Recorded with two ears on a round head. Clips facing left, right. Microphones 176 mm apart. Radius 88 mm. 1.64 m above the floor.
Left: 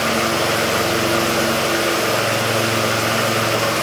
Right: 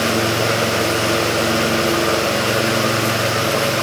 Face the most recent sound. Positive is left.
No sound to turn to.